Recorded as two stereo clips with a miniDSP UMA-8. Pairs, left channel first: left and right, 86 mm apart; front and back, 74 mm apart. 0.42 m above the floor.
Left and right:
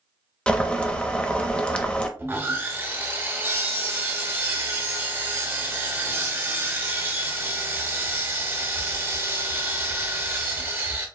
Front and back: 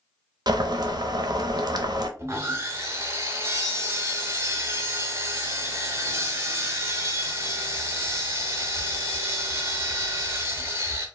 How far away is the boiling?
About 0.6 m.